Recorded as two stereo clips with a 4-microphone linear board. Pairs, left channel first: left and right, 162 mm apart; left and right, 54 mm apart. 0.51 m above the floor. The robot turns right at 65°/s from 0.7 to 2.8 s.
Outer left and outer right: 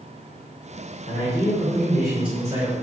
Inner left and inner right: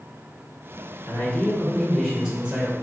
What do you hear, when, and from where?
1.1 s a man speaking: 115° left, 1.8 m; by 2.7 s 135° right, 1.8 m